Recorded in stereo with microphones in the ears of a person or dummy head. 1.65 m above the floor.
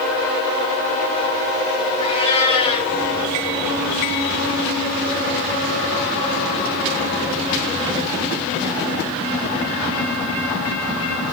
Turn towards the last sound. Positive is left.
turn(degrees=25)  # may be behind; listen again after turning